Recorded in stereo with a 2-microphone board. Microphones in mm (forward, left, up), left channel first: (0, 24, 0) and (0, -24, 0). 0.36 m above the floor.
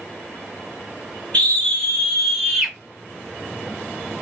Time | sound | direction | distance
1.3 | a scream | 30° left (ahead or behind) | 1.5 m